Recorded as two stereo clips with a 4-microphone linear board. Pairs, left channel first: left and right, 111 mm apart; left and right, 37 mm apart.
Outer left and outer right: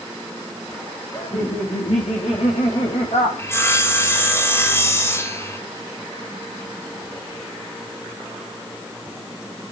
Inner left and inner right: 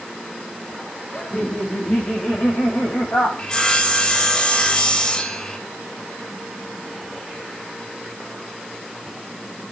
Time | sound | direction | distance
1.1 | laughter | 65° left (ahead or behind) | 6 m
3.4 | sawing | 25° left (ahead or behind) | 2 m